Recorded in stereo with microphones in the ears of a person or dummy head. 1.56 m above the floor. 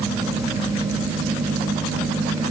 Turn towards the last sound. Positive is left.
No sound to turn to.